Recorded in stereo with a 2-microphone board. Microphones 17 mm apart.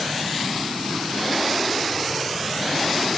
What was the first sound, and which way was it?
Only background noise.